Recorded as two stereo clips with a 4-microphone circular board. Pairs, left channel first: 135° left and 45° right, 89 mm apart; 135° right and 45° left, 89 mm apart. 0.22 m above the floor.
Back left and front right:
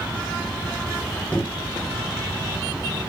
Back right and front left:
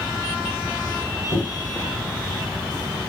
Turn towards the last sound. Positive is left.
turn(degrees=-160)